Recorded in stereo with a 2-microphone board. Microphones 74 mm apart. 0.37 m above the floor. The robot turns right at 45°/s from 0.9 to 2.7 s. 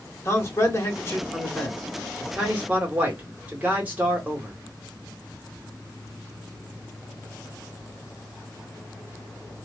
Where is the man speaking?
130° left, 1.2 m; by 4.5 s 150° right, 1.2 m.